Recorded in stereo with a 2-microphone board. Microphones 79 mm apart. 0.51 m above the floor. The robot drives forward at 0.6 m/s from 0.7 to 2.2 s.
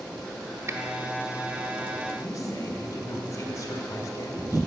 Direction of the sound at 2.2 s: 45° left (ahead or behind).